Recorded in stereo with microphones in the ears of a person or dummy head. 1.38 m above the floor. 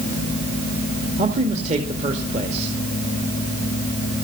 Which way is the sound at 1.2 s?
30° right (ahead or behind).